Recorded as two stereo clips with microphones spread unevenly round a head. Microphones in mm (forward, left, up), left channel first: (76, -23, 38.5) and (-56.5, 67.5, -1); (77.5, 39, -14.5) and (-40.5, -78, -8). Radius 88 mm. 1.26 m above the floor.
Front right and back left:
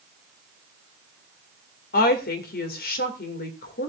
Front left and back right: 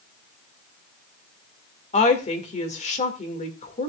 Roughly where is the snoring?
No snoring in this recording.